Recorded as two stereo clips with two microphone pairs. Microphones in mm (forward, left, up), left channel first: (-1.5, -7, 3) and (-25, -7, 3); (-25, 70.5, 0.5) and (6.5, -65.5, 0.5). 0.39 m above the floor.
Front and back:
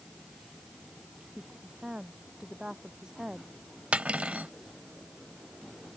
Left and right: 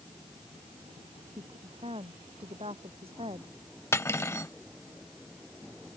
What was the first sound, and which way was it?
A woman speaking, 120° right.